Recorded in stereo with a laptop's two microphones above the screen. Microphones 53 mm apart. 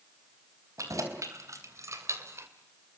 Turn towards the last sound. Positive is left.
turn(degrees=-55)  # may be behind; listen again after turning